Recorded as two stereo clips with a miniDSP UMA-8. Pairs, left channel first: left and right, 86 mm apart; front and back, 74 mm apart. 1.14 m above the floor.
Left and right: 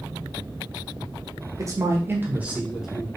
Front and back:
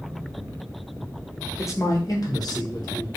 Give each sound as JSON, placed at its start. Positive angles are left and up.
{"t": 1.6, "sound": "a man speaking", "azimuth_deg": -45, "distance_m": 1.6}